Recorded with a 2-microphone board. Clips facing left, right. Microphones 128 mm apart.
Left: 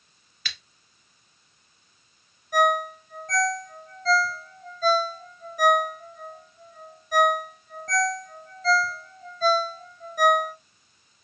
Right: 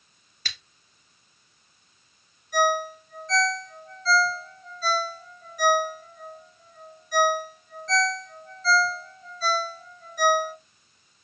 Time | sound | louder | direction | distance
0.5 | scissors | left 1 dB | 40° right (ahead or behind) | 0.8 m
2.5 | a ringtone | left 1 dB | 45° left (ahead or behind) | 0.8 m